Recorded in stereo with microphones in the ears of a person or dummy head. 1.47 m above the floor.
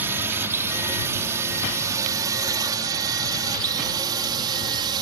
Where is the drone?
10° right (ahead or behind); by 5.0 s 25° right (ahead or behind).